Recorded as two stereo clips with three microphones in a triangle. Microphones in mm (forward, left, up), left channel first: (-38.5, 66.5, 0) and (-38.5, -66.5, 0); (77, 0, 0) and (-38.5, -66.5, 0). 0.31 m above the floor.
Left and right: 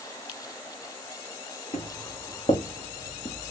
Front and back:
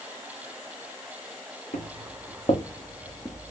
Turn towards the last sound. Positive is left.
turn(degrees=105)